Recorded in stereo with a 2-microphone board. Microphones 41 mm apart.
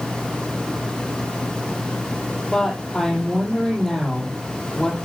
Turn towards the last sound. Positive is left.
turn(degrees=15)  # may be behind; listen again after turning